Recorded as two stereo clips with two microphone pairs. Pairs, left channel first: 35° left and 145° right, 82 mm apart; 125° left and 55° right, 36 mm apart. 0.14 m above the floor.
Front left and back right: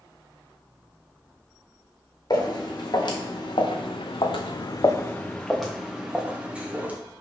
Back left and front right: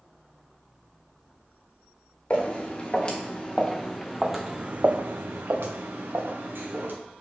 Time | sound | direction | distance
2.3 | footsteps | 70° left | 1.6 m